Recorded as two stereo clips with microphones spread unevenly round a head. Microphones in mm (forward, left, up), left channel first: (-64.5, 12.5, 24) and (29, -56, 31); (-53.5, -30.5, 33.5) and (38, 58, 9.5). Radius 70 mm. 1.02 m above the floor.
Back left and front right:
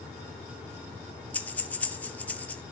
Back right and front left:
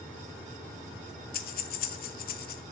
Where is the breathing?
140° right, 0.6 m.